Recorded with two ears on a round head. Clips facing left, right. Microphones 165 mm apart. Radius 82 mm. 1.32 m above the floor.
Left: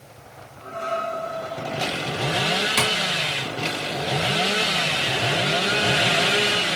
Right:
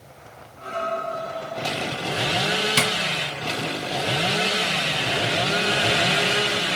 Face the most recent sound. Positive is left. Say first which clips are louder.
# left 1 dB
turn(degrees=-40)  # may be behind; listen again after turning